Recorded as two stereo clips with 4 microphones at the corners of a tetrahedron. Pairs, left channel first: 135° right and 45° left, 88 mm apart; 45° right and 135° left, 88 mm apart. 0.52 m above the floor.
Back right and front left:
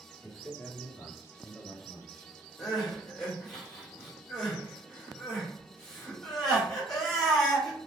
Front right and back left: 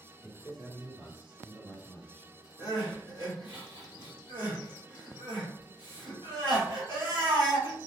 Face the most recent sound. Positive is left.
turn(degrees=140)